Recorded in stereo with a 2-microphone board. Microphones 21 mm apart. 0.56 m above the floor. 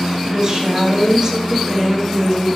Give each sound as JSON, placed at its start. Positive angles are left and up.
{"t": 0.2, "sound": "a woman speaking", "side_deg": -40, "distance_m": 2.5}